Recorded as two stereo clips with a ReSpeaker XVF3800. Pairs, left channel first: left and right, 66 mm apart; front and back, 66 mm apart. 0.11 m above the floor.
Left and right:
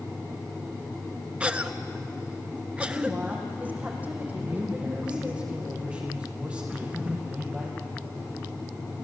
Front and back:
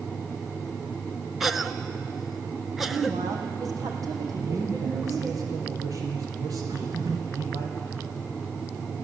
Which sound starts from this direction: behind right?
A woman speaking, at 2.9 s.